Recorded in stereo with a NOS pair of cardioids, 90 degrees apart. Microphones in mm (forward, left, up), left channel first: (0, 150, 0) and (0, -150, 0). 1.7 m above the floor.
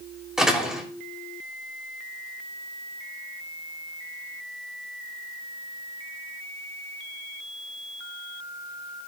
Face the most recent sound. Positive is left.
turn(degrees=0)